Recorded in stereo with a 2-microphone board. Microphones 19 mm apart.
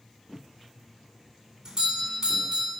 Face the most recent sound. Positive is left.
turn(degrees=-30)  # may be behind; listen again after turning